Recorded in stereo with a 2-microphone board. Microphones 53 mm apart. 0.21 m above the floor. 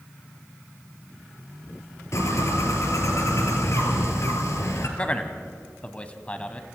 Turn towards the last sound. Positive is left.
turn(degrees=25)  # may be behind; listen again after turning